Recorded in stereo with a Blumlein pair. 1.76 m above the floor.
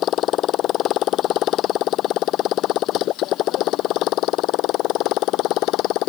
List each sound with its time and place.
0.0 s a motorcycle: 30° left; by 6.1 s 40° left